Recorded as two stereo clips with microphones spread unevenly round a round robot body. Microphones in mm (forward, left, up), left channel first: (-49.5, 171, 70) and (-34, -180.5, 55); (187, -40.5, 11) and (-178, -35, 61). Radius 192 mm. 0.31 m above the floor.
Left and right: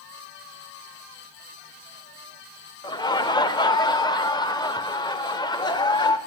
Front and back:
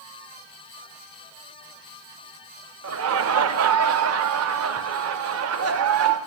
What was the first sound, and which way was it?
Laughter, 165° left.